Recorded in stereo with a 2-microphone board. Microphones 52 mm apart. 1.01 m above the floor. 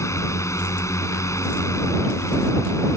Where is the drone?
75° left (ahead or behind); by 3.0 s 80° left.